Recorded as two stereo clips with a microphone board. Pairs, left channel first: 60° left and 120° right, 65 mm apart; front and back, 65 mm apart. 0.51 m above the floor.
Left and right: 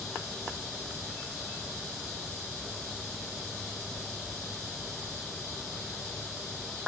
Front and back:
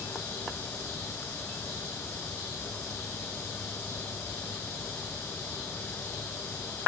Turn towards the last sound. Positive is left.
No sound to turn to.